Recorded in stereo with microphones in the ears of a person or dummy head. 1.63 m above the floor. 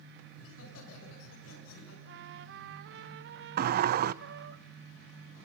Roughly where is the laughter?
Left.